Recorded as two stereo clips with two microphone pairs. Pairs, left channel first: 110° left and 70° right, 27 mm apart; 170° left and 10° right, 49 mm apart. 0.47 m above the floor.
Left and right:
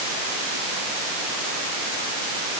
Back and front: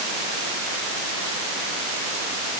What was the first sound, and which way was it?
Only background noise.